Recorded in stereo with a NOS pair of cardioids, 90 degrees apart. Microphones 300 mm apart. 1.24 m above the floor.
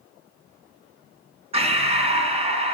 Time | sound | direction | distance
1.5 | breathing | 20° right | 3.5 m